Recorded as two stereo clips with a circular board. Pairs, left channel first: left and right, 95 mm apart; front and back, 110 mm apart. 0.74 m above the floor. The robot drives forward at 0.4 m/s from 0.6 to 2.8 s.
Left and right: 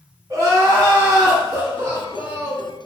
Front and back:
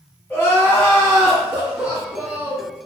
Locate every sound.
0.3 s crying: 70° right, 1.1 m; by 2.7 s 130° right, 1.2 m